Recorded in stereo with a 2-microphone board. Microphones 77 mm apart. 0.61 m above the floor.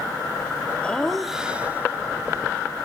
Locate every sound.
0.8 s laughter: 15° left (ahead or behind), 1.2 m; by 2.9 s 45° right (ahead or behind), 2 m